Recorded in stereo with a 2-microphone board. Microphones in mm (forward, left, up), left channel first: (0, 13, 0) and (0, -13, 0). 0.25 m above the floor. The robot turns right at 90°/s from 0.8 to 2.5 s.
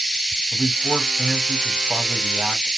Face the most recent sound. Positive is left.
turn(degrees=-125)